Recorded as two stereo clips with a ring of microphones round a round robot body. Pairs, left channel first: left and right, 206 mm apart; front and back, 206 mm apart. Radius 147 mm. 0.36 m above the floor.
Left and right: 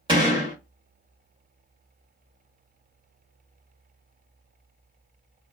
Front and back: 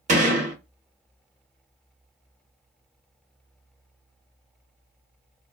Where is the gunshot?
145° right, 1.0 m.